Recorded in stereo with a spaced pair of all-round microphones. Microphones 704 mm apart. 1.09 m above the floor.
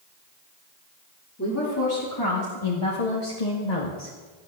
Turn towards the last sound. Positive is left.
turn(degrees=75)  # may be behind; listen again after turning